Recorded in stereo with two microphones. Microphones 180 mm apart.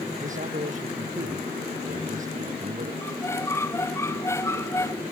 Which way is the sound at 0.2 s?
50° right (ahead or behind).